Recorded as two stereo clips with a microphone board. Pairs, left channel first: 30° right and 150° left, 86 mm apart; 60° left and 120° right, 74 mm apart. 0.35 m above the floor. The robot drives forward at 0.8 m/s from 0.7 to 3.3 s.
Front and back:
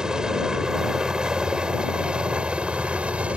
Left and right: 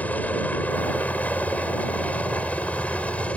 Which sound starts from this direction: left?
A helicopter, at 0.0 s.